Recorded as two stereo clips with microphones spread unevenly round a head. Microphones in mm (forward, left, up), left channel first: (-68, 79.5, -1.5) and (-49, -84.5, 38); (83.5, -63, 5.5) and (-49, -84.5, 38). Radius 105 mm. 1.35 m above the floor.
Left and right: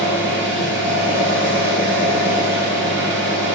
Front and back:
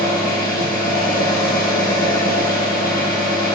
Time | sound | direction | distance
0.0 | an engine running | 5° right | 7.5 m